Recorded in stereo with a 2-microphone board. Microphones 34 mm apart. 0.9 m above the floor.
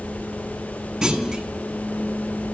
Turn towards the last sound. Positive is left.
turn(degrees=-15)  # may be behind; listen again after turning